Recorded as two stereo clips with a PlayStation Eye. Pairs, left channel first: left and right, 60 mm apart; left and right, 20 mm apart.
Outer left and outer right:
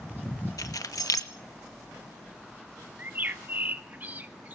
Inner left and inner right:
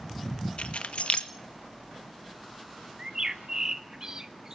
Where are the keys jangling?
75° left (ahead or behind), 1.8 m.